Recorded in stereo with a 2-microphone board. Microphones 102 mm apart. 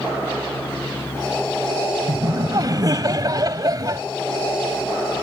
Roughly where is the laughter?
Right.